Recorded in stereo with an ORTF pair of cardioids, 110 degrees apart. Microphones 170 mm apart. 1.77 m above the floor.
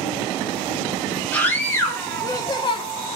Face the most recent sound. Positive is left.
turn(degrees=35)